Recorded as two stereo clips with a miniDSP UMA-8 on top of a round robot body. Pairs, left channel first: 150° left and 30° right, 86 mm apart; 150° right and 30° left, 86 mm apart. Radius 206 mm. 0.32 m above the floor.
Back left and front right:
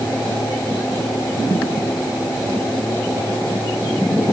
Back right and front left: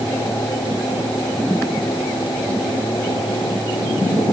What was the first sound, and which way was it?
Only background noise.